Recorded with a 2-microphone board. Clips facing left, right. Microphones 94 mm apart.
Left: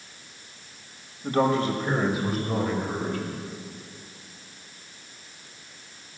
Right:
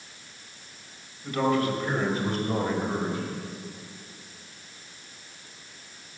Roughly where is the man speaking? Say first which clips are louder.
Left 2 dB; left.